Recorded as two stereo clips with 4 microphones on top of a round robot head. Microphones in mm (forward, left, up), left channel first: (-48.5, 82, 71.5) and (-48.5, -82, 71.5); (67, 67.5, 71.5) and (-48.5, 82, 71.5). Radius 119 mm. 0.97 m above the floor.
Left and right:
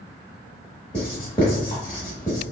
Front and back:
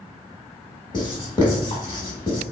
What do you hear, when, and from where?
0.9 s writing: 25° left, 0.8 m